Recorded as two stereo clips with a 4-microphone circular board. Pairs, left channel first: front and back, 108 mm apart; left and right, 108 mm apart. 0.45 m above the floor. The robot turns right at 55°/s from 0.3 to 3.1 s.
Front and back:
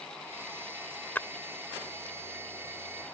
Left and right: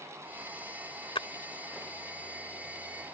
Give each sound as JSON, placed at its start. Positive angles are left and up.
{"t": 1.1, "sound": "a splash", "azimuth_deg": 70}